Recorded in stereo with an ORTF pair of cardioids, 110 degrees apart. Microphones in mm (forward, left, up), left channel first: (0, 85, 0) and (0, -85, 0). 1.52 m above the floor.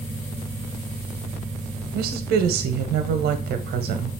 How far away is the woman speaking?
About 0.8 m.